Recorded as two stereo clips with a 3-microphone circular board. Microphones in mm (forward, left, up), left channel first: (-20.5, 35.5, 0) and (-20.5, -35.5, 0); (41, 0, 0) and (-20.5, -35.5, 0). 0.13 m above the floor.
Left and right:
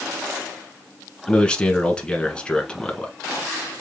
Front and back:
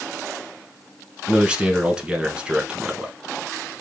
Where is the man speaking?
150° left, 1.1 m.